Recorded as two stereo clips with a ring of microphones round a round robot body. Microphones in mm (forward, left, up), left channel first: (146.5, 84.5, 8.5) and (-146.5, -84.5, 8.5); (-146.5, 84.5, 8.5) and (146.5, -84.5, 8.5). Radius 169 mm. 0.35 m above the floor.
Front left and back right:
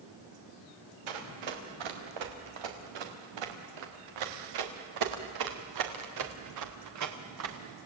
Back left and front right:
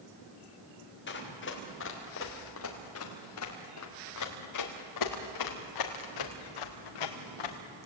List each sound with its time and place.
1.1 s running footsteps: 150° right, 5 m; by 7.6 s 165° left, 3.5 m